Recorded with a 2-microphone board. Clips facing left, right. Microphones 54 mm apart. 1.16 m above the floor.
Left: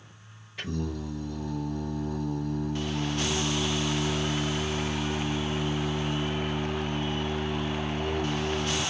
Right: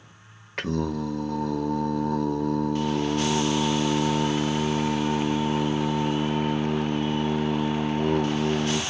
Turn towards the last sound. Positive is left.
turn(degrees=-70)  # may be behind; listen again after turning